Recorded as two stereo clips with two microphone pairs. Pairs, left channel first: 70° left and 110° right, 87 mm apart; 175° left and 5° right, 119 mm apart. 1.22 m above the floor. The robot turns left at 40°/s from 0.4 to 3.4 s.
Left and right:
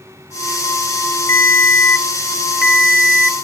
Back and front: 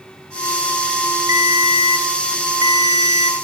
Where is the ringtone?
20° left, 0.9 m; by 3.4 s 65° right, 0.9 m.